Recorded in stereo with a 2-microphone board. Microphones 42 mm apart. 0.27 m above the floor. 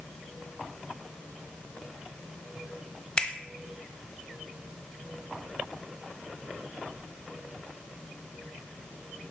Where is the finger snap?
25° left (ahead or behind), 0.8 m.